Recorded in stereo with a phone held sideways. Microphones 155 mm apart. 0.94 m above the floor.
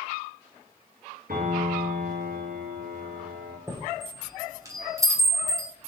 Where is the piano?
75° right (ahead or behind), 7.5 m.